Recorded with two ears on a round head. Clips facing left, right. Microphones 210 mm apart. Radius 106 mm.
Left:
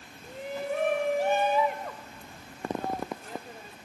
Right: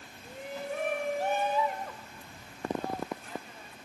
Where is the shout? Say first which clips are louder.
Left 4 dB; 55° left (ahead or behind); by 3.8 s 35° left (ahead or behind).